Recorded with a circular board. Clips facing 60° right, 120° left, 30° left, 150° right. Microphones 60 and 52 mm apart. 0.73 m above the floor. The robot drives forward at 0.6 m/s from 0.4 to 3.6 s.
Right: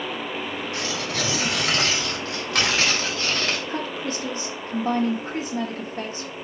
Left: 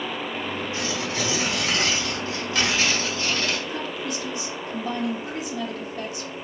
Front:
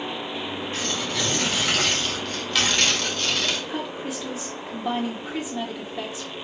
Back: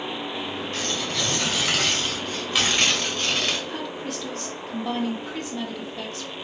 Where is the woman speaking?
45° right, 0.9 m.